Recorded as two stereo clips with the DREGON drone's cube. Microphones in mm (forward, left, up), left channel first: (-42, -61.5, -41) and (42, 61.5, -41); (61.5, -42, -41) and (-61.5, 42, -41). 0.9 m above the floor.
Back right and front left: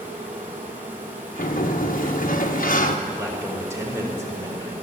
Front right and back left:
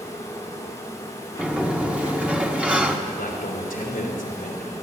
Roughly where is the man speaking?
Ahead.